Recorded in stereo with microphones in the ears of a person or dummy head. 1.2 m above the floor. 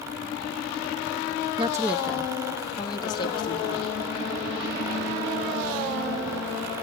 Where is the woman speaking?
20° right (ahead or behind), 0.5 m; by 3.9 s 30° left (ahead or behind), 1.7 m.